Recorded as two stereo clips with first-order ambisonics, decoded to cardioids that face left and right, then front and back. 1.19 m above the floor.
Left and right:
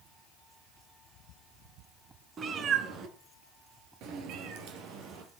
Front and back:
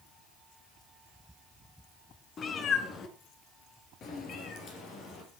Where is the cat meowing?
45° right, 1.3 m; by 5.4 s 60° right, 3.5 m.